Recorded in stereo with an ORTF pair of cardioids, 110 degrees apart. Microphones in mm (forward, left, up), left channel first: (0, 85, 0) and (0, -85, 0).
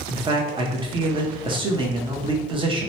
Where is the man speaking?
30° right, 0.8 m.